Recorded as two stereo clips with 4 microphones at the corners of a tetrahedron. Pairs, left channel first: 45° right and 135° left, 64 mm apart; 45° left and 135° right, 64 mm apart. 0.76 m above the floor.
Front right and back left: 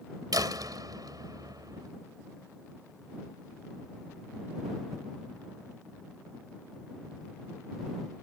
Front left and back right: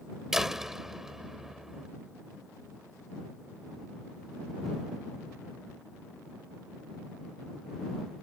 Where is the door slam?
140° left.